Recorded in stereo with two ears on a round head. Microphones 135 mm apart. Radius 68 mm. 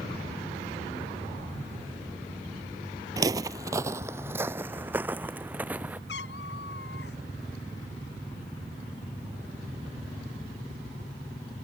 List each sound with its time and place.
3.2 s footsteps: 25° right (ahead or behind); by 6.0 s 10° right (ahead or behind)
6.1 s a cat meowing: 90° left